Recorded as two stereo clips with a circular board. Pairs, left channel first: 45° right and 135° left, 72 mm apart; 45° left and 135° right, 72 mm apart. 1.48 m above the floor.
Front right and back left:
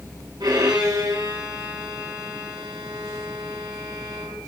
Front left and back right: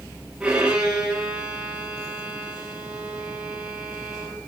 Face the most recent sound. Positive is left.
turn(degrees=155)